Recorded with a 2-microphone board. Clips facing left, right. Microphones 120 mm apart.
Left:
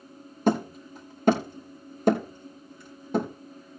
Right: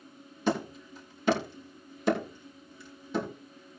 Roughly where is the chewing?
No chewing in this recording.